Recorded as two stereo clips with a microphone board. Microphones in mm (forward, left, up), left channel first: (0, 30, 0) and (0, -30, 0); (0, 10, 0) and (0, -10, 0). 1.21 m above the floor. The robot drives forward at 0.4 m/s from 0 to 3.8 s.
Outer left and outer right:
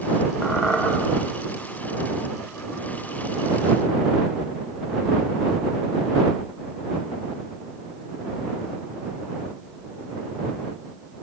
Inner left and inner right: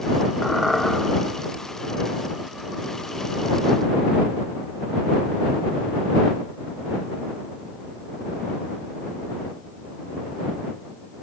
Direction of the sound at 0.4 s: 5° left (ahead or behind).